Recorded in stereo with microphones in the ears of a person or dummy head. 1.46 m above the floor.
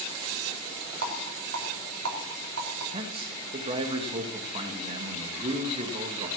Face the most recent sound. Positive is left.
turn(degrees=-40)  # may be behind; listen again after turning